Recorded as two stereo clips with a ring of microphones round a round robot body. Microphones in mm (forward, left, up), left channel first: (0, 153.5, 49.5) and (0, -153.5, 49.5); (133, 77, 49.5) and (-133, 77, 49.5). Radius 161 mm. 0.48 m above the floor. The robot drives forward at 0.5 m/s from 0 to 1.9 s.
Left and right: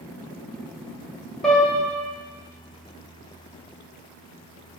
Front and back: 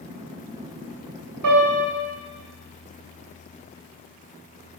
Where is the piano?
Straight behind, 2.5 m.